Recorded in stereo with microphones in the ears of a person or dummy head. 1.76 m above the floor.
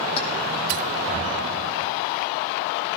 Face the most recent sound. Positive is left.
turn(degrees=30)  # may be behind; listen again after turning